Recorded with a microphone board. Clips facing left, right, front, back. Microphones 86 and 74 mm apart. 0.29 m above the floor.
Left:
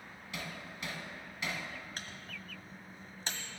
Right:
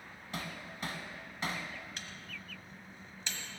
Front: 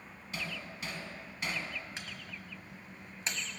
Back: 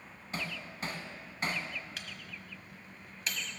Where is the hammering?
135° right, 1.3 m.